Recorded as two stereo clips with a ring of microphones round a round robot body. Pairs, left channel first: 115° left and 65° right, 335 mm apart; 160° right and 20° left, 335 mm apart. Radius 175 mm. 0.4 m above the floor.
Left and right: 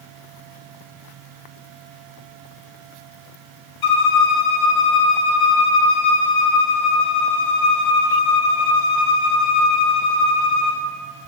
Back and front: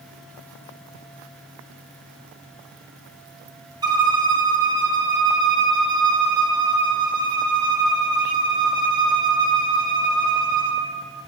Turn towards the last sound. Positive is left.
turn(degrees=100)